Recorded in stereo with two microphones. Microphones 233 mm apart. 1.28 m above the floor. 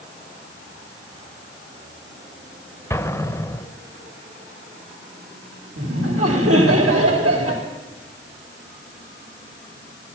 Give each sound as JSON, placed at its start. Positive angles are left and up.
{"t": 2.9, "sound": "an explosion", "side_deg": 10, "distance_m": 0.7}
{"t": 5.8, "sound": "laughter", "side_deg": -80, "distance_m": 3.5}